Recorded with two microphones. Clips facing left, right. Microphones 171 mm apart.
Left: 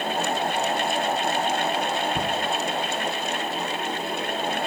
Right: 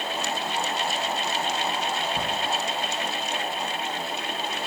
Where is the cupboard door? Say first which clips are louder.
Left 3 dB; 65° left (ahead or behind), 0.9 m.